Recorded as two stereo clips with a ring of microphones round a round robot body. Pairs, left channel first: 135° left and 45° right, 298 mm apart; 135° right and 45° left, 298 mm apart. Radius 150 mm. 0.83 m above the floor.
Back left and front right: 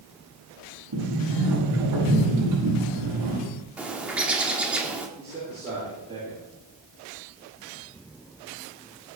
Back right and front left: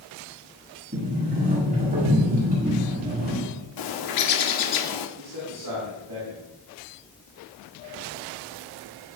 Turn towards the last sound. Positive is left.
turn(degrees=25)